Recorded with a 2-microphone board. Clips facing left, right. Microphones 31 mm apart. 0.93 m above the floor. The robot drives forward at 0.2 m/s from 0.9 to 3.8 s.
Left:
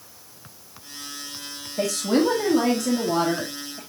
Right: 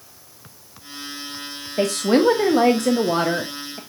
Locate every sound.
1.8 s a woman speaking: 55° right (ahead or behind), 1.2 m; by 3.8 s 60° right (ahead or behind), 1.1 m